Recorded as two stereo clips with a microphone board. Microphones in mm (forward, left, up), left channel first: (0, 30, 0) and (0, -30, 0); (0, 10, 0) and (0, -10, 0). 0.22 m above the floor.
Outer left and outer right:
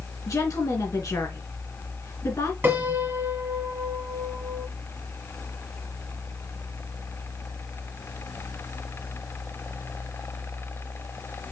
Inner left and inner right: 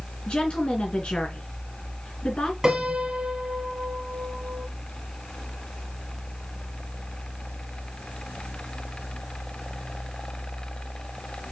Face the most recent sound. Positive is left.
turn(degrees=-35)  # may be behind; listen again after turning